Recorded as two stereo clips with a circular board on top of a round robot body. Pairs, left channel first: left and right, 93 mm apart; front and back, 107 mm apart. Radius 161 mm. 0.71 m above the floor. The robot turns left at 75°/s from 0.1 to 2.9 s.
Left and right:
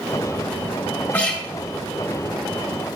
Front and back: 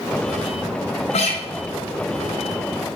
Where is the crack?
I don't hear a crack.